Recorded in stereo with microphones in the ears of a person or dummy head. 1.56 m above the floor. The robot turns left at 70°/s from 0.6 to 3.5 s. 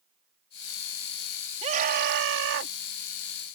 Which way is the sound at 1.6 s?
35° right.